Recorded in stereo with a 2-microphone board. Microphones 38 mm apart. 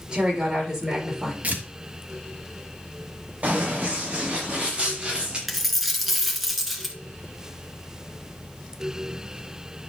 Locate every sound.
0.1 s a woman speaking: 20° right (ahead or behind), 5 m; by 1.3 s 10° right (ahead or behind), 5 m
1.4 s tearing paper: 45° right (ahead or behind), 1.8 m
3.4 s running footsteps: 40° right (ahead or behind), 3.5 m; by 5.4 s 25° right (ahead or behind), 4.5 m
5.5 s a dropped coin: 5° right (ahead or behind), 1.4 m